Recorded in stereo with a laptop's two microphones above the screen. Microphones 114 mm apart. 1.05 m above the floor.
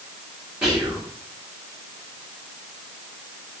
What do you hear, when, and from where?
0.6 s whispering: 15° right (ahead or behind), 1.8 m